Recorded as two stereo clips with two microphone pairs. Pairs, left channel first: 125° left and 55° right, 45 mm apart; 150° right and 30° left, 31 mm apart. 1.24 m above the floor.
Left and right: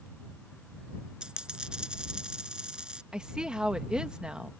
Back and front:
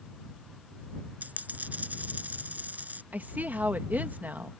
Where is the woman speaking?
15° left.